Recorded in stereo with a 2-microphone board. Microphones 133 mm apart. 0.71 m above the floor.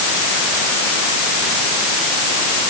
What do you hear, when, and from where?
Only background noise.